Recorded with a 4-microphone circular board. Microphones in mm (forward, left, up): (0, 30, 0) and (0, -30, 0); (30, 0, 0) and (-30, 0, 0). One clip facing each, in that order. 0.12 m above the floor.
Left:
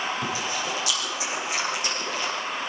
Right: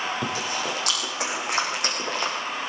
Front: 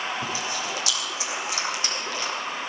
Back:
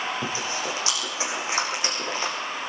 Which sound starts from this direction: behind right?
Chewing, at 0.2 s.